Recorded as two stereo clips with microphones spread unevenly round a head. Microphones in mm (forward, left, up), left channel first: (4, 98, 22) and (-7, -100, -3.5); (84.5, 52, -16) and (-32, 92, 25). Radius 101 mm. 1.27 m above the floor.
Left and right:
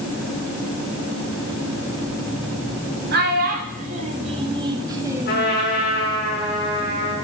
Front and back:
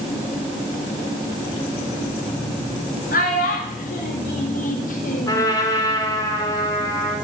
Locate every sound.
3.1 s a child speaking: 50° right, 2 m; by 5.5 s 10° right, 2.5 m
5.3 s a trumpet: 45° left, 6 m